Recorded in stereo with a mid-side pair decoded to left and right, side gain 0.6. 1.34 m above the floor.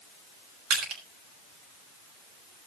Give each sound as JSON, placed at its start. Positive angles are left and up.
{"t": 0.7, "sound": "crushing", "azimuth_deg": -65, "distance_m": 6.0}